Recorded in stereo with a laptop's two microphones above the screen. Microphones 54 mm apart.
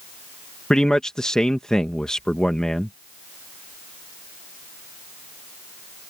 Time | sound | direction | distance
0.7 | a man speaking | 15° left (ahead or behind) | ?